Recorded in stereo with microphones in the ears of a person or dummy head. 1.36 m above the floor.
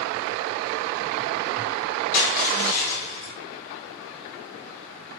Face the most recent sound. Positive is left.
turn(degrees=50)  # may be behind; listen again after turning